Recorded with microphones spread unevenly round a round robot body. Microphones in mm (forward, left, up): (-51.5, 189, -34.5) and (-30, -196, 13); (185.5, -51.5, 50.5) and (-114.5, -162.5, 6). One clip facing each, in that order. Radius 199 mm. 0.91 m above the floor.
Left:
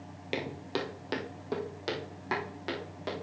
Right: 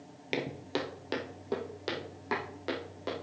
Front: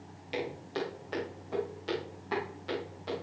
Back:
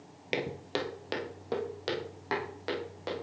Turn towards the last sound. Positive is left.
turn(degrees=175)